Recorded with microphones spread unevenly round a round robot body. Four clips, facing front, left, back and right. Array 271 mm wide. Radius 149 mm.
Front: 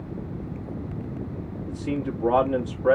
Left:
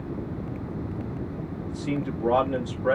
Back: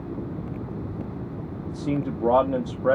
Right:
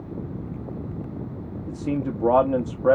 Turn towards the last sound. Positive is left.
turn(degrees=-125)